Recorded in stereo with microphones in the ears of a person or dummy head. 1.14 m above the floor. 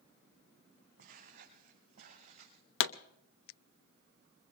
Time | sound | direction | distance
1.0 | footsteps | 55° right (ahead or behind) | 4 m
2.8 | a pop | 75° left (ahead or behind) | 0.7 m